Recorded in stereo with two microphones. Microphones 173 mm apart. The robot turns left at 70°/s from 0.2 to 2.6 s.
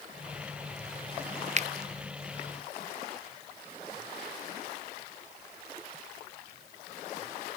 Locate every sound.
1.6 s a finger snap: 45° right (ahead or behind), 0.6 m; by 1.7 s 40° right (ahead or behind), 0.6 m